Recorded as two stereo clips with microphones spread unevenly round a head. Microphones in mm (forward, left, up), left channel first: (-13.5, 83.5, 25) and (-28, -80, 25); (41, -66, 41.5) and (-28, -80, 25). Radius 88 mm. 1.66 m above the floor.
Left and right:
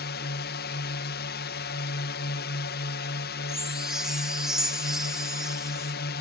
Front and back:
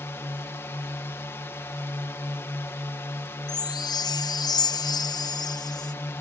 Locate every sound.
0.0 s a drone: 80° left
3.5 s a chime: 5° right